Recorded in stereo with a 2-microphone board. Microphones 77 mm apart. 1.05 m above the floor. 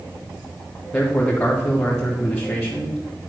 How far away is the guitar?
I don't hear a guitar.